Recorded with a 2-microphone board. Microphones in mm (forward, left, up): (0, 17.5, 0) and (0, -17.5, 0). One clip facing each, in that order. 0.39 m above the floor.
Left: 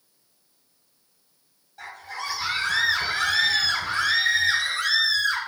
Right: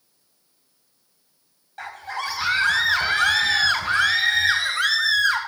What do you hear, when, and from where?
1.8 s a scream: 60° right (ahead or behind), 2 m